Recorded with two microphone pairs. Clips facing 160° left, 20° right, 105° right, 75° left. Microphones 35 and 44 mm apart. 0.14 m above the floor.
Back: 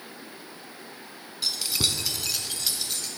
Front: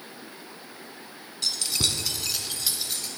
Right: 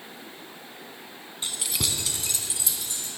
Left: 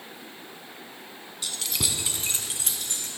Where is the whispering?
No whispering in this recording.